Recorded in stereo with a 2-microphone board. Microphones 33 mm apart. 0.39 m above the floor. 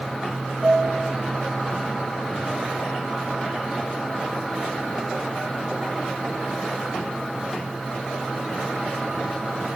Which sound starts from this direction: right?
A piano, at 0.6 s.